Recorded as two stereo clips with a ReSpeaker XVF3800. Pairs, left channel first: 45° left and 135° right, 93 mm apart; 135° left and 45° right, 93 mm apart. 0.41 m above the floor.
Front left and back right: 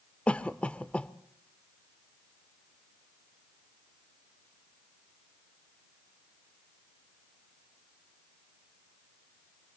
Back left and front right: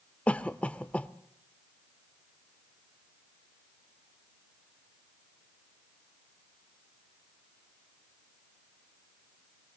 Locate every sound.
0.3 s a cough: 90° left, 0.8 m